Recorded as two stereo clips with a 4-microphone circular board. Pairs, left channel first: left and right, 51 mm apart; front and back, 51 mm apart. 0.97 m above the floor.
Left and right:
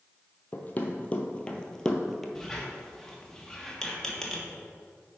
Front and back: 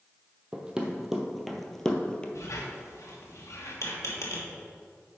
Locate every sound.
0.5 s running footsteps: 120° left, 1.3 m; by 2.2 s 10° left, 1.0 m
2.4 s a squeak: 10° left, 1.3 m